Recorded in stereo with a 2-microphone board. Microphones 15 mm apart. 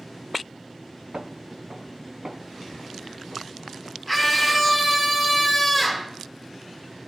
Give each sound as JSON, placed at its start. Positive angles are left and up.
{"t": 1.1, "sound": "footsteps", "side_deg": -80, "distance_m": 0.6}
{"t": 4.1, "sound": "a scream", "side_deg": -10, "distance_m": 2.5}